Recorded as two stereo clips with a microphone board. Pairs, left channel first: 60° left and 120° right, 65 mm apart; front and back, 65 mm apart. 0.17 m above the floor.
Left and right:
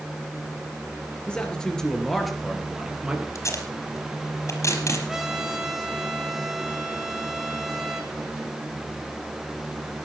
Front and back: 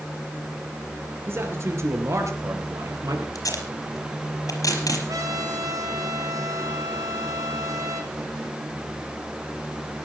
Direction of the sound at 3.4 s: 25° left.